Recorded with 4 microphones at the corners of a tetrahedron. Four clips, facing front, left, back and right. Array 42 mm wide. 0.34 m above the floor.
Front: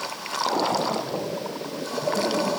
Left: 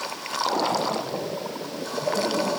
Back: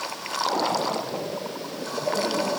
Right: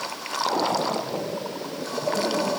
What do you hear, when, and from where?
Only background noise.